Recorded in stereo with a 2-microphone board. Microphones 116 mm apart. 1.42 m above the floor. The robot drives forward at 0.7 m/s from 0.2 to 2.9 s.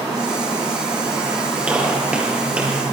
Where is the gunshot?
10° right (ahead or behind), 7.5 m.